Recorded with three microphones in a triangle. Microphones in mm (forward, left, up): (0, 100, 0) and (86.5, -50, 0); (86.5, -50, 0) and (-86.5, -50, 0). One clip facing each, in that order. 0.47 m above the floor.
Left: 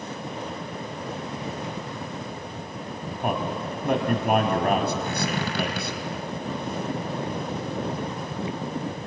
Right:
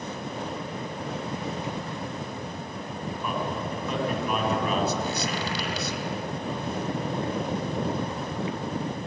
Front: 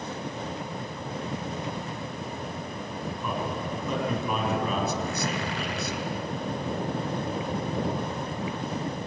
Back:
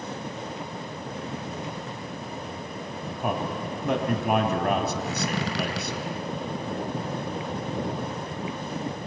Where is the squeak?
160° left, 6 m.